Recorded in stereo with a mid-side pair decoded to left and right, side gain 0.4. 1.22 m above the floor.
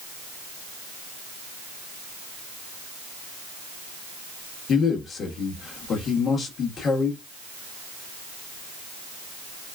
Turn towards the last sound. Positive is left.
turn(degrees=60)